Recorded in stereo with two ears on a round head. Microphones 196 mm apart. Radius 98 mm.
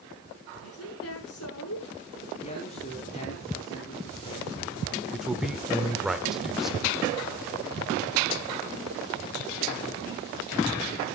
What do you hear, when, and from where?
0.6 s a woman speaking: 75° left (ahead or behind), 6.5 m
2.4 s a man speaking: 30° left (ahead or behind), 4.5 m
5.1 s a man speaking: centre (ahead or behind), 1.6 m